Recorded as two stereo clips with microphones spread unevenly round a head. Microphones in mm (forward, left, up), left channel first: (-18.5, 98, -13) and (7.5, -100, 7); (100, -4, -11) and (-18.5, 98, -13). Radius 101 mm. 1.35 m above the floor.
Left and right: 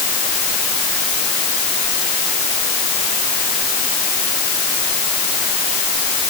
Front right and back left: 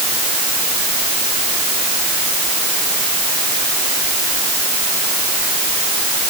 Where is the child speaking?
I don't hear a child speaking.